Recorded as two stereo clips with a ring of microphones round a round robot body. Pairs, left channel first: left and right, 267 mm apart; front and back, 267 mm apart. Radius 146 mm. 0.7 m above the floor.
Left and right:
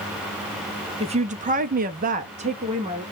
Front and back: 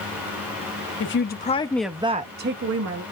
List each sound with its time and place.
1.0 s a woman speaking: 25° right, 1.1 m; by 3.0 s 160° right, 1.3 m